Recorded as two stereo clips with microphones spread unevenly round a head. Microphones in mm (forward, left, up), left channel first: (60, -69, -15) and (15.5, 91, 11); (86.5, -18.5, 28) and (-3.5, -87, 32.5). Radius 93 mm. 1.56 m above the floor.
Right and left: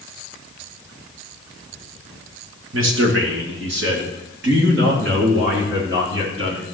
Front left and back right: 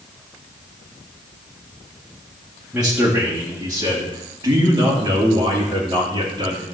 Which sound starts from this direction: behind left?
A man speaking, at 2.7 s.